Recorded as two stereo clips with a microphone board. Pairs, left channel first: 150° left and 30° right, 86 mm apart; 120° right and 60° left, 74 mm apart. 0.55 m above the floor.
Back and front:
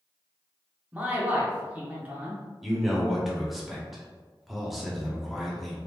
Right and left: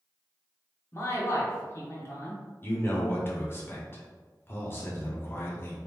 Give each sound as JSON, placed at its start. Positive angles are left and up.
{"t": 0.9, "sound": "a man speaking", "azimuth_deg": -95, "distance_m": 1.1}
{"t": 2.6, "sound": "a man speaking", "azimuth_deg": -120, "distance_m": 0.8}